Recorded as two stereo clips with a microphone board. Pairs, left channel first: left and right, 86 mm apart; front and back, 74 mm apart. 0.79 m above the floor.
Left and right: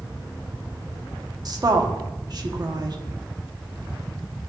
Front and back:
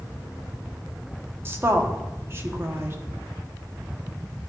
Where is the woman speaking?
125° right, 1.2 m.